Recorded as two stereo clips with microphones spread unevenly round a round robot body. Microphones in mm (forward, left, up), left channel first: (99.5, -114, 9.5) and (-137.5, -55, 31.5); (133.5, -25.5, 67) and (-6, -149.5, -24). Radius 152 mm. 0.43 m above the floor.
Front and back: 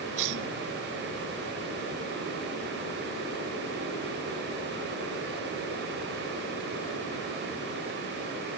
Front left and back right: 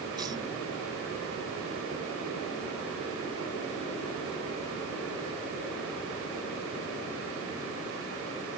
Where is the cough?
145° left.